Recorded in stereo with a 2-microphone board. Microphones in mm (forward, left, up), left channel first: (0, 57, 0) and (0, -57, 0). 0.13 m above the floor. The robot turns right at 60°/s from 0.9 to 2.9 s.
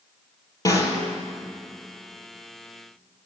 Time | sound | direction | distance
0.7 | a snare drum | 30° left (ahead or behind) | 2.5 m